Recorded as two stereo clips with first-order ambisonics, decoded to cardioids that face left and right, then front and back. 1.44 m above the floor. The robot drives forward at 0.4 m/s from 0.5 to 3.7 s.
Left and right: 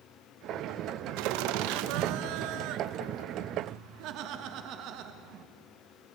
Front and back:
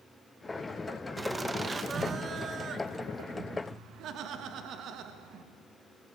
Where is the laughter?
95° right, 1.5 m; by 5.5 s 130° right, 1.9 m.